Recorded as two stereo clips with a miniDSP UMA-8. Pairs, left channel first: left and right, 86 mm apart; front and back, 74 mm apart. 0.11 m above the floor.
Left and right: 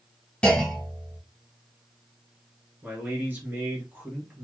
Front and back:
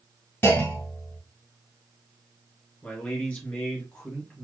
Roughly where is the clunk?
Ahead left.